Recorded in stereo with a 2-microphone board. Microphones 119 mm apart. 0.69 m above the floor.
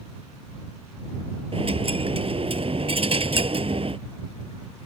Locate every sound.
1.5 s a dropped coin: 55° right (ahead or behind)